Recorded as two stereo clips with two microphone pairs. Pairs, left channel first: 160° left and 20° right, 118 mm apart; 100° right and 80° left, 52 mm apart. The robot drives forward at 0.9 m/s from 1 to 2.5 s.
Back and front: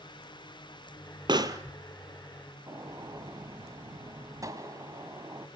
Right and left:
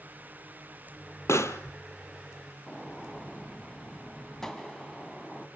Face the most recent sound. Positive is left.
turn(degrees=-25)